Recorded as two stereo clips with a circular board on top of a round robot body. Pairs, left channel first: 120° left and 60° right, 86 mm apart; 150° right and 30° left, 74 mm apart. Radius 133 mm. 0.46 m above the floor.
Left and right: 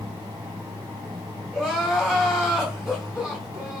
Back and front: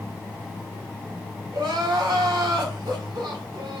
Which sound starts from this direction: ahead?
Crying, at 1.5 s.